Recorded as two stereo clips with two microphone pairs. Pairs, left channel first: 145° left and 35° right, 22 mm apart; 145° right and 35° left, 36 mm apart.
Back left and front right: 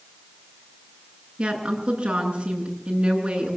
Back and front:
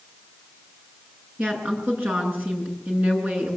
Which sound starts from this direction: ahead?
A woman speaking, at 1.4 s.